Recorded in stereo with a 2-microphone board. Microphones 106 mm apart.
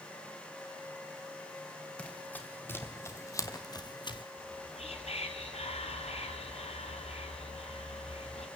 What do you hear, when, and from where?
2.0 s running footsteps: 10° left (ahead or behind), 2.5 m; by 4.2 s 50° left (ahead or behind), 1.6 m
4.4 s whispering: 75° left (ahead or behind), 3 m